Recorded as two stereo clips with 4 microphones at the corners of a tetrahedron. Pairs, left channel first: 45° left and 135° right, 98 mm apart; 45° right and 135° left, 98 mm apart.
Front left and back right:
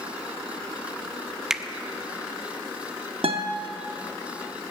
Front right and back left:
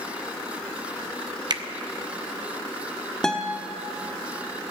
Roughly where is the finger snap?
Behind left.